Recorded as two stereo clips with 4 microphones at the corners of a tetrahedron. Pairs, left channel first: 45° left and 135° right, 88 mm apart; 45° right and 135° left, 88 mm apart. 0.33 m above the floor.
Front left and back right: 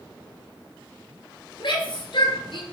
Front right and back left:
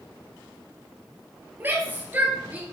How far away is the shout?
About 5 m.